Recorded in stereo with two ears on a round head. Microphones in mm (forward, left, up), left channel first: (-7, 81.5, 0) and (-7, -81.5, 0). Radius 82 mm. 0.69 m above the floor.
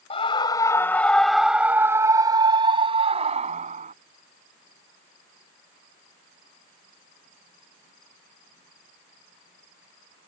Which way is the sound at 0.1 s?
30° left (ahead or behind).